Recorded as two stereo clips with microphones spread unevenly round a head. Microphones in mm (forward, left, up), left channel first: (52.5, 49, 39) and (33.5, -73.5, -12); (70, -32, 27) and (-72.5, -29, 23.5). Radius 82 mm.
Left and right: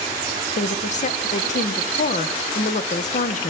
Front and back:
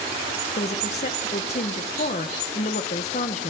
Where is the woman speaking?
45° left, 1.3 m.